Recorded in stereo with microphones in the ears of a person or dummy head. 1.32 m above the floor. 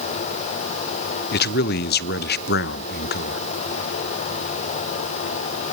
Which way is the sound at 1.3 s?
50° left (ahead or behind).